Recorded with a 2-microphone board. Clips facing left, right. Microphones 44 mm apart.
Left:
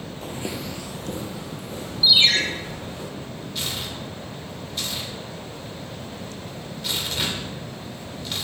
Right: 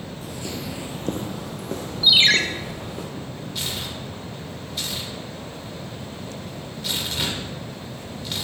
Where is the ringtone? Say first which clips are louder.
Right 1 dB; 60° right (ahead or behind), 0.7 m.